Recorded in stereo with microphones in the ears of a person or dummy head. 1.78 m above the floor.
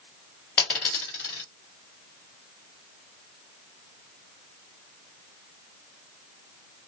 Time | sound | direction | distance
0.6 | a dropped coin | 10° left (ahead or behind) | 1.2 m